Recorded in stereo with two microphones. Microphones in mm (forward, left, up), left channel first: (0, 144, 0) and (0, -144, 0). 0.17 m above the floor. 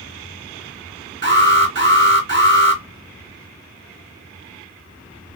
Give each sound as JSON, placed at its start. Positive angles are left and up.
{"t": 1.2, "sound": "an alarm", "side_deg": -40, "distance_m": 3.0}